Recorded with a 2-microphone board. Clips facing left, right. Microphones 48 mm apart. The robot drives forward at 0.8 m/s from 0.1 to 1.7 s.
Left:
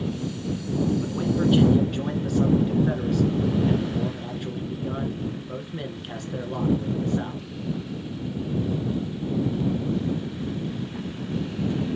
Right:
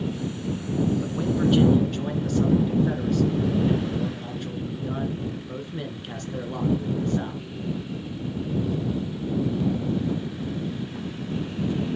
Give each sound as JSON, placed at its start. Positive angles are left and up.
{"t": 1.0, "sound": "a man speaking", "side_deg": 5, "distance_m": 1.2}